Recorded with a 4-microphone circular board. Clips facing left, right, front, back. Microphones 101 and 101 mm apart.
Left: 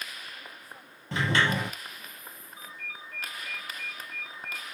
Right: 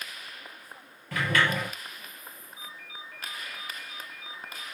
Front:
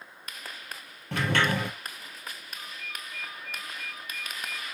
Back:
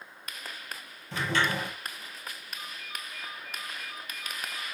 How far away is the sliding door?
About 4 m.